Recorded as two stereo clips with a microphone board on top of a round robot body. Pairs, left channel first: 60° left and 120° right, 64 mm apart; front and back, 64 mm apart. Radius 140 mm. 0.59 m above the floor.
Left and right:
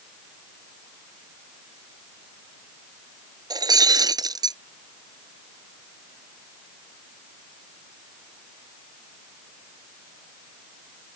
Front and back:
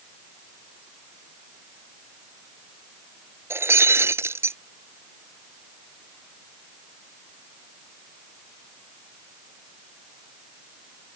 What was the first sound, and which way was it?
Breaking glass, 130° right.